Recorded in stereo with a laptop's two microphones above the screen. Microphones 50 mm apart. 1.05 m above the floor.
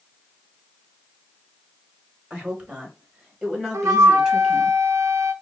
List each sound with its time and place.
2.3 s a woman speaking: 25° right (ahead or behind), 2.5 m; by 4.7 s 5° right (ahead or behind), 1.6 m
3.7 s a flute: 75° right (ahead or behind), 0.5 m